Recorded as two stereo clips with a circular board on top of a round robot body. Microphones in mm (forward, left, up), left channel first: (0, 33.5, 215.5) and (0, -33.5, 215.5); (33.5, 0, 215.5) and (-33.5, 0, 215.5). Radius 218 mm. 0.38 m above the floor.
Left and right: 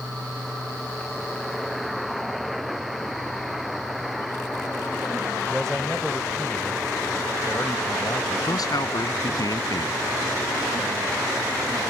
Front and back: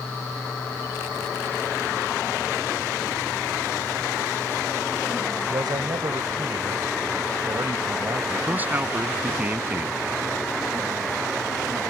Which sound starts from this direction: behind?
A man speaking, at 5.5 s.